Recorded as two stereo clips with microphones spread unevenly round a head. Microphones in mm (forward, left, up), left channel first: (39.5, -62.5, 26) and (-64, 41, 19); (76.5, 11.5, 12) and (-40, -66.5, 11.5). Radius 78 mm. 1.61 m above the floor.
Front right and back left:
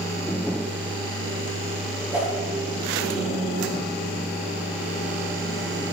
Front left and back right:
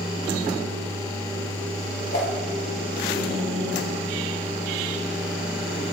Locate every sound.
2.1 s a whoosh: 55° left, 3.5 m